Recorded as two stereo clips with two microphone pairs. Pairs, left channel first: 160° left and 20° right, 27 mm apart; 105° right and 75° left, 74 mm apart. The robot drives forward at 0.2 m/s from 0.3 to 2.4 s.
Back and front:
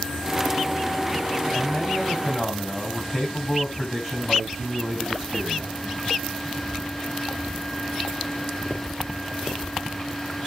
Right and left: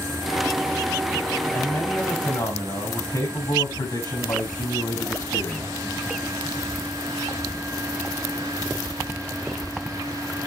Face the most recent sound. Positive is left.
turn(degrees=-110)